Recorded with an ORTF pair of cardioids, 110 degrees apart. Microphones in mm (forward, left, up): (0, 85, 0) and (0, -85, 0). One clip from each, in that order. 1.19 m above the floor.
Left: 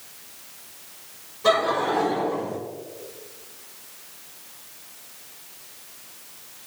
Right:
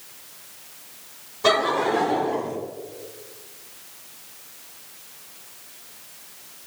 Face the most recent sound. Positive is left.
turn(degrees=-65)